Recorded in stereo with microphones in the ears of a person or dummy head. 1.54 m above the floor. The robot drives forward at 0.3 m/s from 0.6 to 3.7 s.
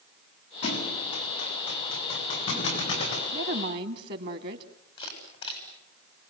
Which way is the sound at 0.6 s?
40° left (ahead or behind).